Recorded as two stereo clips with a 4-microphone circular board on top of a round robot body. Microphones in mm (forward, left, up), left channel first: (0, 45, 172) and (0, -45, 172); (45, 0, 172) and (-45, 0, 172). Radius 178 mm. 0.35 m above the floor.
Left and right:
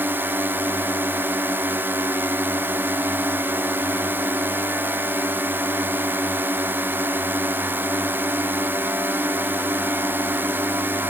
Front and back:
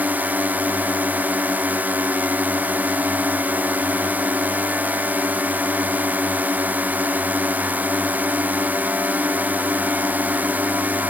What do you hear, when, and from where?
0.0 s a drone: 130° right